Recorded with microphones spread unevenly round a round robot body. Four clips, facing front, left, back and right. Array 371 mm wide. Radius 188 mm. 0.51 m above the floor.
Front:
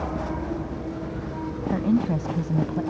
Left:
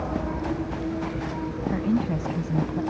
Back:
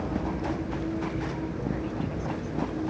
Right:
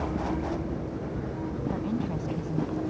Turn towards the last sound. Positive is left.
turn(degrees=30)